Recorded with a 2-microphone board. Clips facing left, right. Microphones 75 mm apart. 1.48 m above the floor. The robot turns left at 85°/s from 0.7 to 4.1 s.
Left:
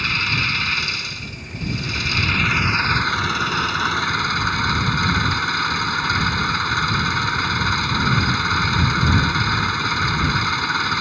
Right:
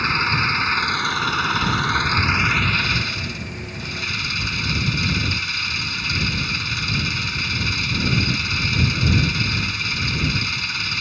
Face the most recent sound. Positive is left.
turn(degrees=45)